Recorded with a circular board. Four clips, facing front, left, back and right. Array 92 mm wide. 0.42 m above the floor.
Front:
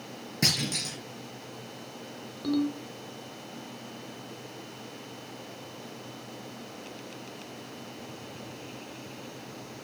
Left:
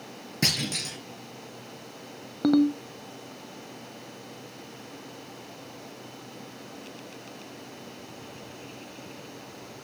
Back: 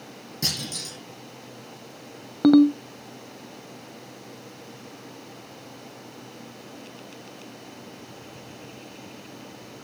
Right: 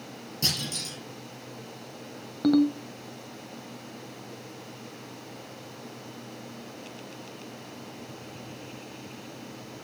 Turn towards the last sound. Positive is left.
turn(degrees=170)